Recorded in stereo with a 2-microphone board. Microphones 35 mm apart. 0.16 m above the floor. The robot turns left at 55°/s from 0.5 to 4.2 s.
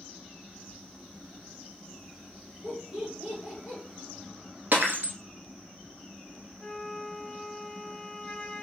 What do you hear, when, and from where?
2.6 s laughter: 25° right (ahead or behind), 1.5 m; by 3.8 s centre (ahead or behind), 1.5 m
4.7 s breaking glass: 60° right (ahead or behind), 1.0 m
6.6 s a flute: 20° left (ahead or behind), 0.6 m